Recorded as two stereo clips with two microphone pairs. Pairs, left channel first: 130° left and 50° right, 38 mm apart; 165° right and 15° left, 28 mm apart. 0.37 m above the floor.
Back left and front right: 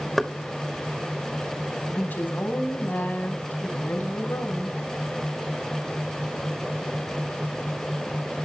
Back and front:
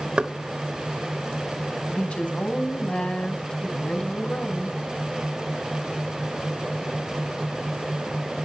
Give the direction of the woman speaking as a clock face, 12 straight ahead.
7 o'clock.